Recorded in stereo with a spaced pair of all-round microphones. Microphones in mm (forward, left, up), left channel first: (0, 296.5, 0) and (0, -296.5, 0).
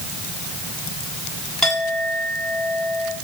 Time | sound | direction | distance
1.6 | a clink | centre (ahead or behind) | 7.5 m